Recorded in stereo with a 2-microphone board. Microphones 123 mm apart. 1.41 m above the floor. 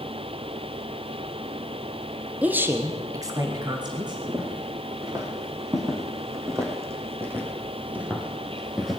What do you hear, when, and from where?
2.4 s a woman speaking: 10° right (ahead or behind), 1.1 m; by 4.2 s 40° right (ahead or behind), 2 m
4.3 s footsteps: 35° right (ahead or behind), 4 m; by 9.0 s centre (ahead or behind), 1.9 m